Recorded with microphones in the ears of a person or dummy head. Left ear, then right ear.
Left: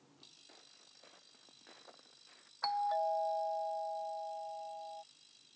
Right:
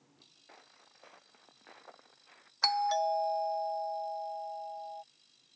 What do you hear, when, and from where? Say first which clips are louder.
0.5 s footsteps: right 2 dB; 40° right (ahead or behind); by 2.5 s 35° right (ahead or behind)
2.6 s a doorbell: right 5 dB; 75° right (ahead or behind)